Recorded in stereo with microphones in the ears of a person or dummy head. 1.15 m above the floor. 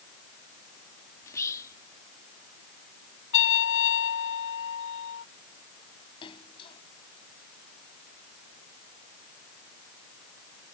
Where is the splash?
30° left (ahead or behind).